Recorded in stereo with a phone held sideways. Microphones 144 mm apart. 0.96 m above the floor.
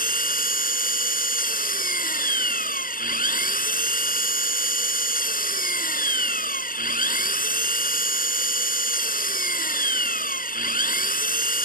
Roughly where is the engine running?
Left.